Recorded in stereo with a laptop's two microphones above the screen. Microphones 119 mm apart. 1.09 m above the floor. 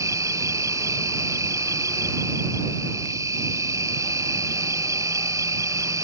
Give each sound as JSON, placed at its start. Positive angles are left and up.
{"t": 0.0, "sound": "an insect", "side_deg": -25}